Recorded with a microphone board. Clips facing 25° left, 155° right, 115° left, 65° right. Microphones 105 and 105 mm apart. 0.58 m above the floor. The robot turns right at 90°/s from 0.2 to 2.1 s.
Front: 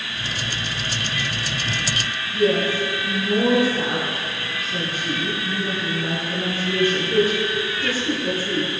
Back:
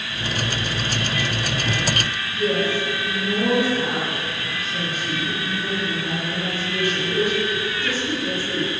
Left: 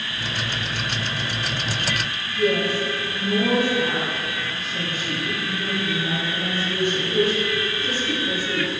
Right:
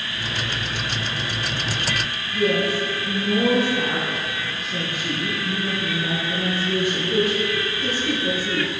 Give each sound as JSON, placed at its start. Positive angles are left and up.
{"t": 2.3, "sound": "a woman speaking", "azimuth_deg": -35, "distance_m": 8.0}